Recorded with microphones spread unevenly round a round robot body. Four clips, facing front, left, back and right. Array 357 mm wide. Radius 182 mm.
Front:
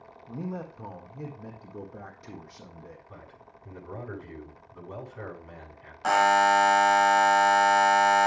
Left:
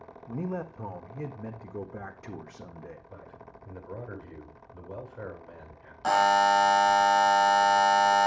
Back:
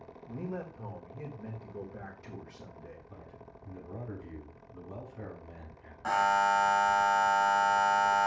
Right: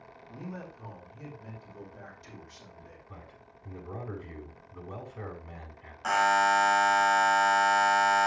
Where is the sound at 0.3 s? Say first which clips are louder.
Left 8 dB, front 3 dB; 75° left, 1.5 m.